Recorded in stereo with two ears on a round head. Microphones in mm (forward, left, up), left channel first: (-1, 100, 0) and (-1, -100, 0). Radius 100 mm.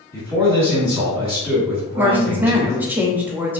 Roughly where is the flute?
No flute in this recording.